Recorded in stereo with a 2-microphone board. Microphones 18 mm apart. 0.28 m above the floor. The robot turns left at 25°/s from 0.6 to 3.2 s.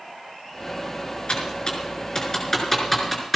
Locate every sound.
1.3 s typing on a keyboard: 50° left (ahead or behind), 5 m; by 3.4 s 5° left (ahead or behind), 5 m